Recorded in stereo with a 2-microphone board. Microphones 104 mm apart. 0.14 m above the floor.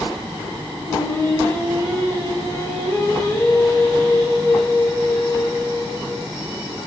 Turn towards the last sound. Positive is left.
turn(degrees=25)  # may be behind; listen again after turning